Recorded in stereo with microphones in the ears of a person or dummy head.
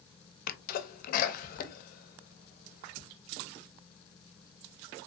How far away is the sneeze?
About 0.6 m.